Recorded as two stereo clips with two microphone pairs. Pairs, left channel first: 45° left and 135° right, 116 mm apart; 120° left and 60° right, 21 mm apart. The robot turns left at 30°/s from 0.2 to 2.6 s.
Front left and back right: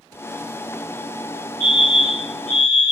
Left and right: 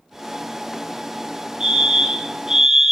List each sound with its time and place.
1.6 s a fire alarm: 100° right, 2 m; by 2.9 s 130° right, 2 m